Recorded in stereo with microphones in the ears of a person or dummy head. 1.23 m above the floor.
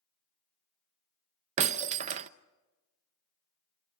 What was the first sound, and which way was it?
Breaking glass, 35° right (ahead or behind).